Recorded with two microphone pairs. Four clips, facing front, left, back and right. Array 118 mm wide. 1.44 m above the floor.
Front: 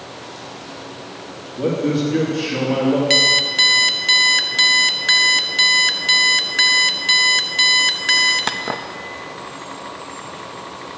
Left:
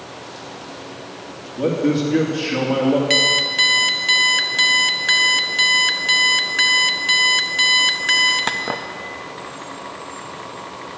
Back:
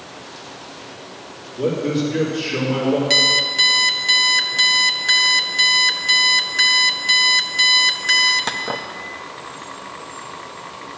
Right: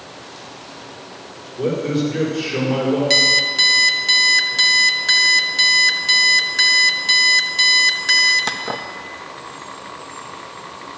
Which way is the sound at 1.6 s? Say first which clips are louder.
Left 2 dB, front 1 dB; 75° left.